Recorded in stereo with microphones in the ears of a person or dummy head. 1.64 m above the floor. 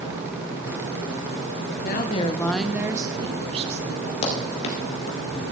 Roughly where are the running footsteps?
Left.